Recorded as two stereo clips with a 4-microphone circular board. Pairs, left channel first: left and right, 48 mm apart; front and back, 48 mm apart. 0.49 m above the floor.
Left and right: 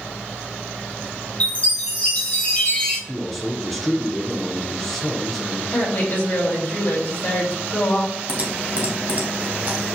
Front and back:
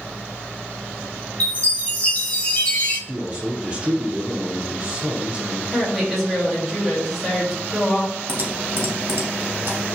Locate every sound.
1.4 s a chime: 45° left, 1.8 m
3.1 s a man speaking: straight behind, 0.7 m
5.7 s a woman speaking: 90° left, 1.8 m
8.3 s typing on a keyboard: 140° right, 1.1 m